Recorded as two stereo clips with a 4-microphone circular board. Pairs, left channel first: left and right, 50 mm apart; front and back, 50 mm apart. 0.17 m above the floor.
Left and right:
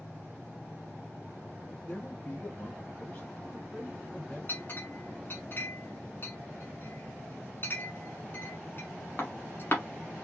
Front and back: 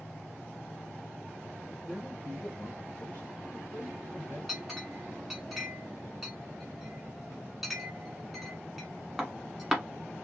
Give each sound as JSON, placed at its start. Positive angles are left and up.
{"t": 1.9, "sound": "a man speaking", "azimuth_deg": 85, "distance_m": 1.4}
{"t": 4.5, "sound": "a clink", "azimuth_deg": 95, "distance_m": 1.2}